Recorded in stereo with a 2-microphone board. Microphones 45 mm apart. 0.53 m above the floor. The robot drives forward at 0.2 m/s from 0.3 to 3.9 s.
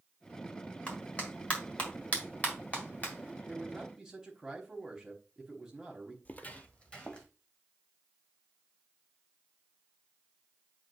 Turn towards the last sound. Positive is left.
turn(degrees=20)  # may be behind; listen again after turning